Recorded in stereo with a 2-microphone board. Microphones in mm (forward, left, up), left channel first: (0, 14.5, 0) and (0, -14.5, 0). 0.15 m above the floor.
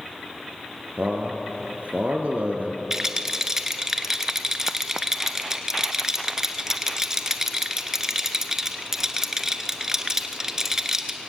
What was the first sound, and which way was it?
A man speaking, 60° right (ahead or behind).